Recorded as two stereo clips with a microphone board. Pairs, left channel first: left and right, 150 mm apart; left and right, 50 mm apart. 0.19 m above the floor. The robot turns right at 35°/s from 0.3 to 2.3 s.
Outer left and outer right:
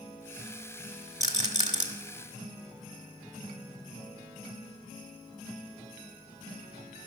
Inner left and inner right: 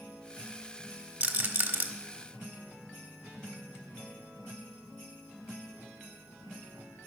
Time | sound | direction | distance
1.2 | a rattle | 25° right (ahead or behind) | 1.4 m